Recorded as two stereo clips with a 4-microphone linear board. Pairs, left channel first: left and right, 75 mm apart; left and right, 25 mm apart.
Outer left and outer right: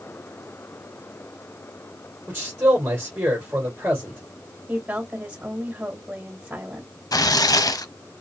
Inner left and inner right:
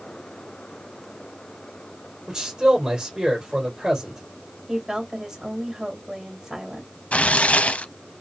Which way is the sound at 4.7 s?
20° right (ahead or behind).